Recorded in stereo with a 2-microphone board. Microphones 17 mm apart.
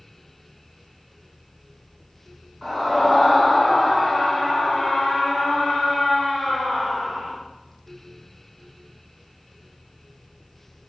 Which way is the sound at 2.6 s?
10° left (ahead or behind).